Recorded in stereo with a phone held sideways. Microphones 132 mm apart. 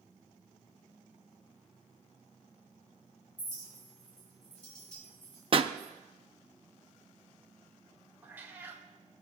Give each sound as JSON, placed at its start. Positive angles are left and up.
{"t": 3.4, "sound": "a clink", "side_deg": 65, "distance_m": 2.5}
{"t": 5.5, "sound": "a pop", "side_deg": -40, "distance_m": 0.5}
{"t": 8.2, "sound": "a cat meowing", "side_deg": -15, "distance_m": 1.3}